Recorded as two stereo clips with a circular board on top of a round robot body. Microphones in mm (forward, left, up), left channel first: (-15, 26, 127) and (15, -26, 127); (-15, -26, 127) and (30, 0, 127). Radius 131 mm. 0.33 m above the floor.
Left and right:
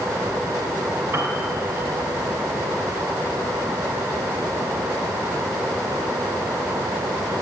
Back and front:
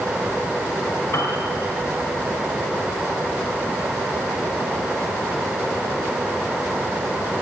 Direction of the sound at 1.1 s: 110° right.